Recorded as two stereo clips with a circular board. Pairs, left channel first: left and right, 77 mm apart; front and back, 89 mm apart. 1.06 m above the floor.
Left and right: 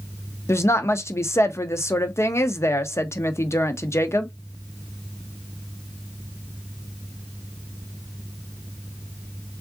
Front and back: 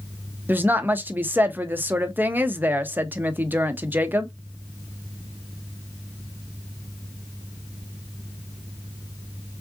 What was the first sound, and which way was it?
A woman speaking, 125° left.